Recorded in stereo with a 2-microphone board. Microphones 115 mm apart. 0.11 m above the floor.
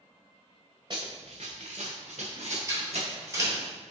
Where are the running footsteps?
45° right (ahead or behind), 0.7 m; by 3.7 s 65° right (ahead or behind), 1.7 m.